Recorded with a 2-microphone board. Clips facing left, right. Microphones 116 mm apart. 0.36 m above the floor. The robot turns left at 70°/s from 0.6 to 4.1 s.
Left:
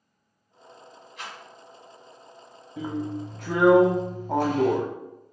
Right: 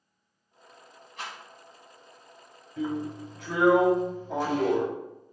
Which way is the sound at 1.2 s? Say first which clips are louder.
Right 1 dB; 40° right (ahead or behind).